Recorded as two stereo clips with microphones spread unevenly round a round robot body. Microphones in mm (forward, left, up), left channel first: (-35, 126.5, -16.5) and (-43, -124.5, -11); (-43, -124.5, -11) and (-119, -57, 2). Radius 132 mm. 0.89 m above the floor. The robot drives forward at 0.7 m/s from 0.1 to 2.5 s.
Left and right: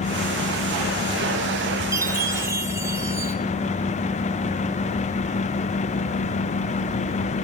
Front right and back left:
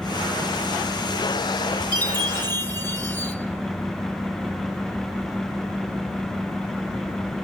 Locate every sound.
1.9 s a chime: 170° right, 4 m